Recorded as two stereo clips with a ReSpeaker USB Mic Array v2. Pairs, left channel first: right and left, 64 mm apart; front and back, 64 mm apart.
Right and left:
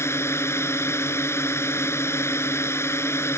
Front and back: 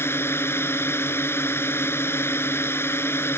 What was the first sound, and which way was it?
A drone, 50° right.